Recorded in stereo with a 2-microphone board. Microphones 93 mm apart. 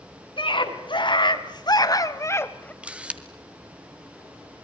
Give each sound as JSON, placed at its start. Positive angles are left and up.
{"t": 0.4, "sound": "a scream", "side_deg": 65, "distance_m": 3.0}
{"t": 2.8, "sound": "a camera shutter", "side_deg": -15, "distance_m": 1.5}